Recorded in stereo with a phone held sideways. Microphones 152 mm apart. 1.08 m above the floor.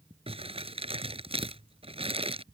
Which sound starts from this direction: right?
Crumpling, at 0.3 s.